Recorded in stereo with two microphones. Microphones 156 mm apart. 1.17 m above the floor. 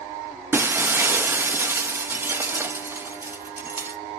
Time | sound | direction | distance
0.5 | breaking glass | 15° right (ahead or behind) | 0.6 m